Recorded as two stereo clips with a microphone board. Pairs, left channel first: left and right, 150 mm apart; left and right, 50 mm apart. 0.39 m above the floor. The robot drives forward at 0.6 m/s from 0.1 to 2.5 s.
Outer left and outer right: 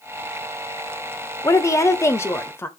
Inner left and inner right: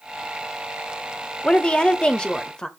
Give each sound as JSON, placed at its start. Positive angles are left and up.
{"t": 1.4, "sound": "a woman speaking", "side_deg": 20, "distance_m": 0.8}